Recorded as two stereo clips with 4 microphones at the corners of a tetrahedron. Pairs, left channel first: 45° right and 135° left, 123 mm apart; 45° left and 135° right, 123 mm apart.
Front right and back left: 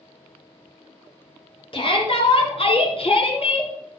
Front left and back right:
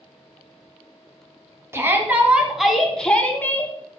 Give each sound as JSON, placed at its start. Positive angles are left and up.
{"t": 1.7, "sound": "a shout", "azimuth_deg": -70, "distance_m": 2.5}